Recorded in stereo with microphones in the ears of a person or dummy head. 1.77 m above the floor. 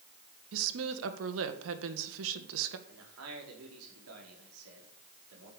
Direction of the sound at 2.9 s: 90° right.